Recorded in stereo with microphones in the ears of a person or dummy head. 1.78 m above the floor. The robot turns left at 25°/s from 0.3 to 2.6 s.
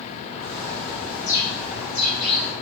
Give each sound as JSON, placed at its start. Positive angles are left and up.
{"t": 0.4, "sound": "a bird", "azimuth_deg": -130, "distance_m": 1.0}